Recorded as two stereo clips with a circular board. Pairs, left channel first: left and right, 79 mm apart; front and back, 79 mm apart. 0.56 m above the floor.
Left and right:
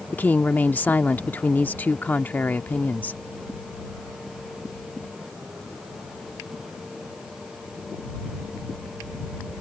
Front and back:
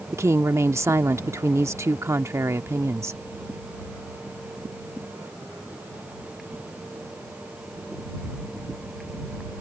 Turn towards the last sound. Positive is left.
turn(degrees=150)